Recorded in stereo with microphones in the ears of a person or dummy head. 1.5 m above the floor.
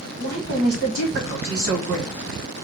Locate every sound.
0.2 s a woman speaking: 55° right (ahead or behind), 1.4 m